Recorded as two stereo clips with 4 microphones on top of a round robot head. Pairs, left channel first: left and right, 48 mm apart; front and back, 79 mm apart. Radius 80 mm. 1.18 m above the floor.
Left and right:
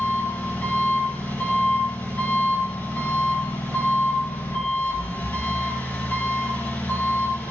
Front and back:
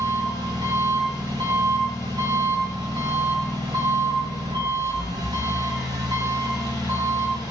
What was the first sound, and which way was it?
An engine running, 145° left.